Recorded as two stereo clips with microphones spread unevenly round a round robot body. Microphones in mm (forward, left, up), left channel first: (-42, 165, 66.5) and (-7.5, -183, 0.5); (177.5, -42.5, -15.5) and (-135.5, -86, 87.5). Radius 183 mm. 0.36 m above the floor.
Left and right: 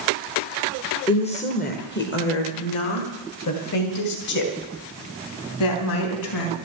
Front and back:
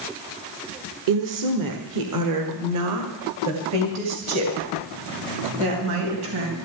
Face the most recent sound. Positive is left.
turn(degrees=130)